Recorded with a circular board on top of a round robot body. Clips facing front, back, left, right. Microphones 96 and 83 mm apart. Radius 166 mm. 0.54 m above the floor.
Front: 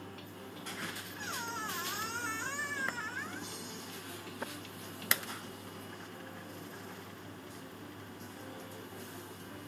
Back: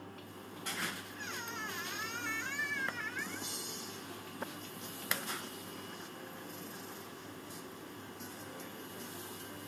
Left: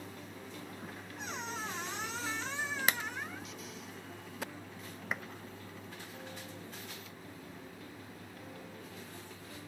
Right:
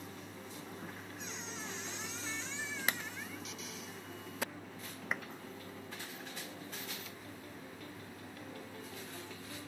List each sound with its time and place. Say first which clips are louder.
1.2 s a squeak: front 5 dB, left 8 dB; 55° left